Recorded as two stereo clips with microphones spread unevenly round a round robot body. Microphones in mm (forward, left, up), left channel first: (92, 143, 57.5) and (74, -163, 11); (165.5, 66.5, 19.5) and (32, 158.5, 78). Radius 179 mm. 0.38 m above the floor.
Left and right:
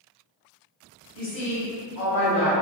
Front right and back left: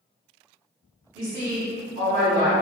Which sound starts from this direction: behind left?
A woman speaking, at 1.1 s.